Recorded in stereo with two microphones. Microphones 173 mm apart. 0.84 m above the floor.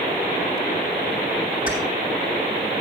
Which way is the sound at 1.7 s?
55° left (ahead or behind).